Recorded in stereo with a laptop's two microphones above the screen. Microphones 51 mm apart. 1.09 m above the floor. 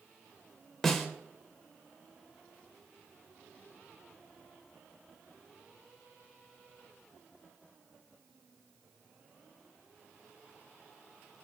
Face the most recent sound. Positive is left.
turn(degrees=10)  # may be behind; listen again after turning